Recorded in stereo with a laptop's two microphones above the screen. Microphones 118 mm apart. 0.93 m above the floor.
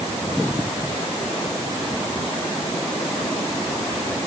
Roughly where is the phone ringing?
No phone ringing in this recording.